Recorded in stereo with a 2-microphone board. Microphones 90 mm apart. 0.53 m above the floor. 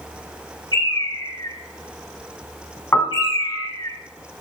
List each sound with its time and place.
0.7 s a bird: 50° left (ahead or behind), 3 m
2.9 s a piano: 30° left (ahead or behind), 1.3 m